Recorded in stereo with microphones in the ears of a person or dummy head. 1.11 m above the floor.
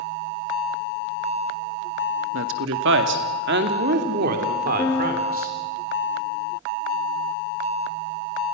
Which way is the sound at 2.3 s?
75° right (ahead or behind).